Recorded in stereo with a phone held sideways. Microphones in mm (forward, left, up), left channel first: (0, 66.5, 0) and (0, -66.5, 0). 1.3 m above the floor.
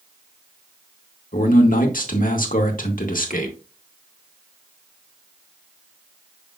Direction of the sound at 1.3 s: 80° left.